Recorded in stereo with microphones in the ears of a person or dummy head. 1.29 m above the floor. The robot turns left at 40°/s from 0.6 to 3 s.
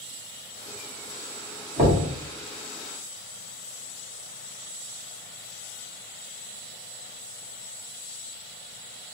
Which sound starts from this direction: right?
Knocking, at 1.8 s.